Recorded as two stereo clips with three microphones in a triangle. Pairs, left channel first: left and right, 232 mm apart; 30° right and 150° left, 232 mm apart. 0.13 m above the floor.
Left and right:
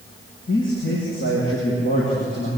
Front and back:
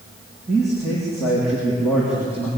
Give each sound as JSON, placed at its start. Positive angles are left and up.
{"t": 0.5, "sound": "a man speaking", "azimuth_deg": 60, "distance_m": 7.0}